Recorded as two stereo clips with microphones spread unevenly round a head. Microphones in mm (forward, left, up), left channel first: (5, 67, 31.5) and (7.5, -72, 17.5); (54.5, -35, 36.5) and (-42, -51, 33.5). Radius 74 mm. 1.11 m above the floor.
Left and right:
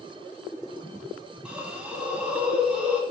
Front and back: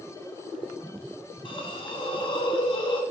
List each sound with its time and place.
1.4 s a hiss: 15° right, 0.8 m